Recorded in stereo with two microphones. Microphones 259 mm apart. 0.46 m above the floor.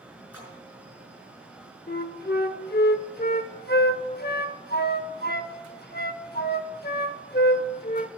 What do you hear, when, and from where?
0.3 s a splash: 70° left (ahead or behind), 5.5 m
1.9 s a flute: 40° left (ahead or behind), 0.7 m